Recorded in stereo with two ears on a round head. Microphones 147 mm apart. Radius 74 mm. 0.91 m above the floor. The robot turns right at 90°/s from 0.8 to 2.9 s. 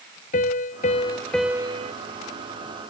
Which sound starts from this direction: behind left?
A piano, at 0.3 s.